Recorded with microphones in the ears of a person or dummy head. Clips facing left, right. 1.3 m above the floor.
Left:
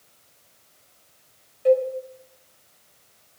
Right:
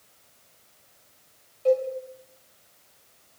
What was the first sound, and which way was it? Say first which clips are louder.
A cowbell: left 4 dB; 15° left (ahead or behind).